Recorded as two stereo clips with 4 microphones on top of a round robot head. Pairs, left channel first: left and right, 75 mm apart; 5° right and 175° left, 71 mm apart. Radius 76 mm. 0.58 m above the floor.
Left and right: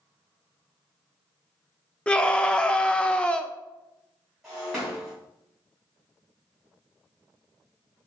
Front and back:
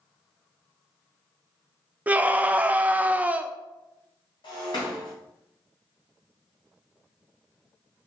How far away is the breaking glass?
About 3 m.